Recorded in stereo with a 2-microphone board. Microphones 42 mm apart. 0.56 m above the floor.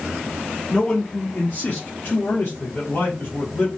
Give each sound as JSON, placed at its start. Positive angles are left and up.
{"t": 0.7, "sound": "a man speaking", "side_deg": 15, "distance_m": 0.7}